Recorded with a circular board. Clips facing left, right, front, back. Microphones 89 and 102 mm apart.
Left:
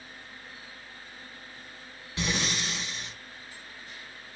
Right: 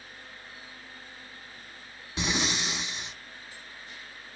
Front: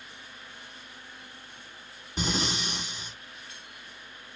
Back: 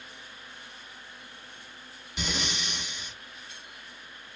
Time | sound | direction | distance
2.2 | breathing | 30° right | 0.8 m